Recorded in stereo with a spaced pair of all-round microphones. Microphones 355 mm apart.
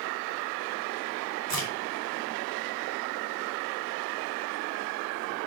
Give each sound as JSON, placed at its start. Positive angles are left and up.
{"t": 1.5, "sound": "a crack", "side_deg": 75, "distance_m": 6.0}